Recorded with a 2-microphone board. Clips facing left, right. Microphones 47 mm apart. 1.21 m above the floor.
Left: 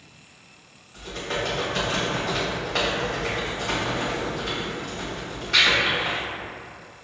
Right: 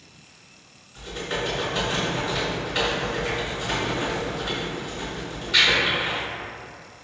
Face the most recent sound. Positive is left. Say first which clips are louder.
# even
turn(degrees=70)  # may be behind; listen again after turning